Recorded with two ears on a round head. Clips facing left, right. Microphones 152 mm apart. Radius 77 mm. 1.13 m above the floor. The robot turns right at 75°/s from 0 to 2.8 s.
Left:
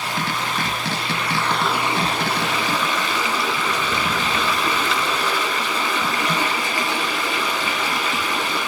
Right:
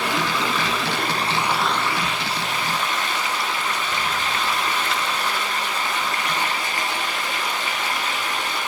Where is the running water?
125° right, 2 m; by 8.7 s 85° left, 2 m.